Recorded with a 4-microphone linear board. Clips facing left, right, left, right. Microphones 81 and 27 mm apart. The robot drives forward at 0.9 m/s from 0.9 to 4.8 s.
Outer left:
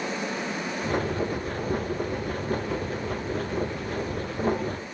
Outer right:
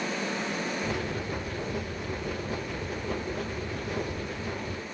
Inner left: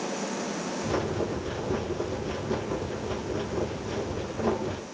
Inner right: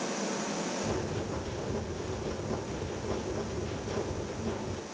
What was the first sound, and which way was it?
Only background noise.